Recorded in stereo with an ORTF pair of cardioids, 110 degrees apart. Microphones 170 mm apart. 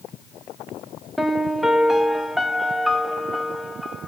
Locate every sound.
1.2 s a piano: straight ahead, 0.7 m